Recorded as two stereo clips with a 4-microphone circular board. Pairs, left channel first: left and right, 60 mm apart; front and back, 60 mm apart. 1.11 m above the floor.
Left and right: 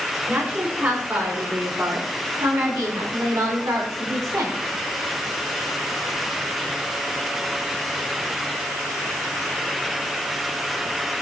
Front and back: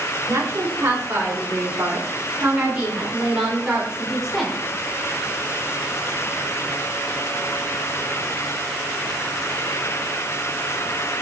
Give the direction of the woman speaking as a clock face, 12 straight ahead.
5 o'clock.